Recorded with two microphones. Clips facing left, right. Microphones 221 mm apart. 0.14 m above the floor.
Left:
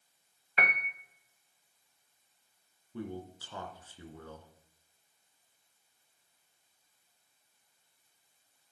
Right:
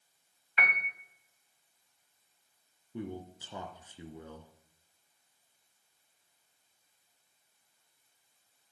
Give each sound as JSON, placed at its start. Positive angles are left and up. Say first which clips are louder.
{"t": 0.6, "sound": "a piano", "louder": "left 3 dB", "side_deg": 45, "distance_m": 2.5}
{"t": 2.9, "sound": "a man speaking", "louder": "even", "side_deg": -20, "distance_m": 2.0}